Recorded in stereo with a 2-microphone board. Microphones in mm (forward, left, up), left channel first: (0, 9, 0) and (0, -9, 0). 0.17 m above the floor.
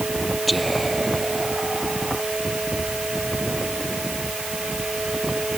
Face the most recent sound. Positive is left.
turn(degrees=0)  # may be behind; listen again after turning